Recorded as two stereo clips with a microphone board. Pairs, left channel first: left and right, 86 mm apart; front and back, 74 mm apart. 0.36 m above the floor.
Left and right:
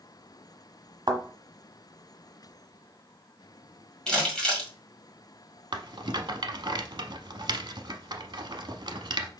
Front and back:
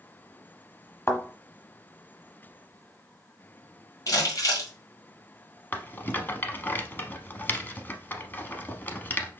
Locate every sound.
1.1 s a thud: 55° right, 1.1 m
4.1 s crumpling: 10° left, 1.9 m
5.7 s a rattle: 65° right, 0.7 m